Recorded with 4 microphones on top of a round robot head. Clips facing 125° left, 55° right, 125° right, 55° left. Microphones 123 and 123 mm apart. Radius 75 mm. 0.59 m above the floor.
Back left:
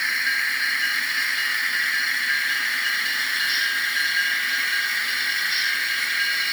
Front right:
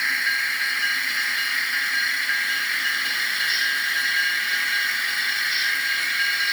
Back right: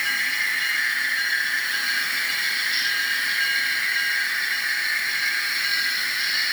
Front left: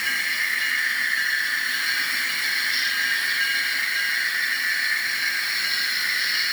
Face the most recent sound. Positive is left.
No sound to turn to.